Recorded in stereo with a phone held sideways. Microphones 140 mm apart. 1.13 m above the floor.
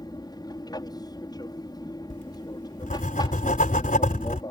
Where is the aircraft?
30° left (ahead or behind).